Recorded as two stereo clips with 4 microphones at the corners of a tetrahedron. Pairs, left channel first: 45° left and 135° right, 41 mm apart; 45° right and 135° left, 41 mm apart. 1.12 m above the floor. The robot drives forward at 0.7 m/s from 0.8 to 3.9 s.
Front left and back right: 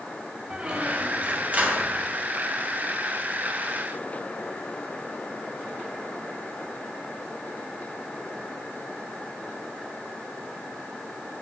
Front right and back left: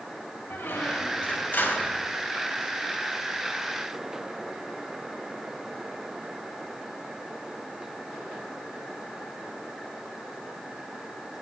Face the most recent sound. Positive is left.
turn(degrees=-120)